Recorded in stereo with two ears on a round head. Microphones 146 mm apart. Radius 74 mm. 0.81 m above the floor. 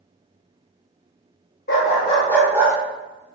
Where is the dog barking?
60° left (ahead or behind), 1.0 m; by 2.8 s 25° right (ahead or behind), 0.8 m.